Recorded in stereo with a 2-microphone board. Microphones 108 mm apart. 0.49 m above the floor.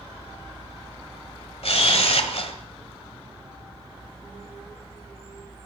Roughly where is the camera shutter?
Left.